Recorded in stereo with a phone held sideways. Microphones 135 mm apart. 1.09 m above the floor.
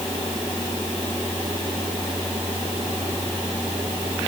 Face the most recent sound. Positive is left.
No sound to turn to.